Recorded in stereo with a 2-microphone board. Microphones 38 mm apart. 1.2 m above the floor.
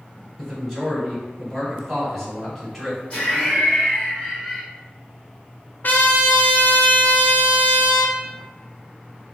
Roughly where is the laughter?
Left.